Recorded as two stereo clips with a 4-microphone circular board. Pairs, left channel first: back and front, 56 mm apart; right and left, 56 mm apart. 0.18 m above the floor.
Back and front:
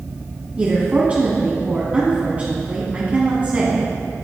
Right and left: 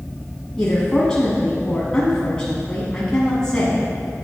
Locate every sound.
0.6 s a woman speaking: 25° right, 1.7 m